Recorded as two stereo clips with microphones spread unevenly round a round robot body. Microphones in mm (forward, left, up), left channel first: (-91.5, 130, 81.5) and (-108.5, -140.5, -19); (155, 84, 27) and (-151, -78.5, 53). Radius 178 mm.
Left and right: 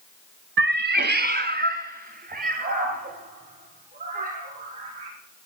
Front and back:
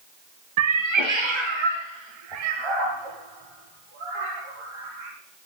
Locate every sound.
0.6 s a cat meowing: 145° right, 0.7 m; by 5.1 s 155° right, 7 m